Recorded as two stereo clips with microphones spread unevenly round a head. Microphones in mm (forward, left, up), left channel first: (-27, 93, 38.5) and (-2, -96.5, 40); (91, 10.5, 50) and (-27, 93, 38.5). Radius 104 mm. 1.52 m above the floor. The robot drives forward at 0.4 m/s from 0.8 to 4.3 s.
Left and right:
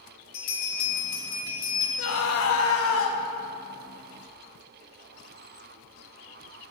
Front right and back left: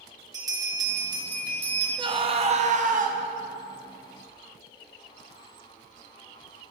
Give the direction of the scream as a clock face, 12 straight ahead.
9 o'clock.